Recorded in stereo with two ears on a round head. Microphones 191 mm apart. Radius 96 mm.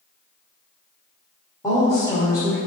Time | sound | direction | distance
1.6 | a woman speaking | 20° left (ahead or behind) | 2.0 m